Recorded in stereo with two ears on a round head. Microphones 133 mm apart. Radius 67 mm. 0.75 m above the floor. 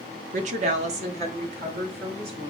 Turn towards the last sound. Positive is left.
turn(degrees=-45)  # may be behind; listen again after turning